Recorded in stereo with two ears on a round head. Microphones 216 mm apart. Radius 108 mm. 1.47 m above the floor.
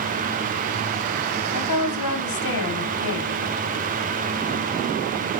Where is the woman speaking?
85° left, 3 m.